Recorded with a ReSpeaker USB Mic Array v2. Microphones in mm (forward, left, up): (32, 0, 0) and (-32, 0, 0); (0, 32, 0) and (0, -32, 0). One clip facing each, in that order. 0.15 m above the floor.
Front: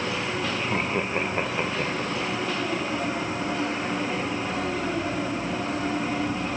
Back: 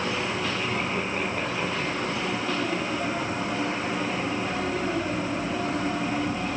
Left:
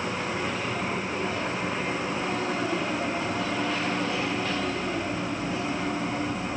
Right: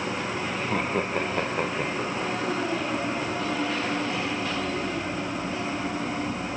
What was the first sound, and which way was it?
Laughter, 60° right.